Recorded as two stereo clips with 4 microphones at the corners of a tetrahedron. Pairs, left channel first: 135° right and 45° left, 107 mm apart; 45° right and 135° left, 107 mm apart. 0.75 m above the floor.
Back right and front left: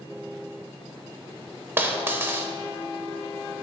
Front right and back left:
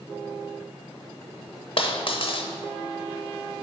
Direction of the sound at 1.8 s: 20° right.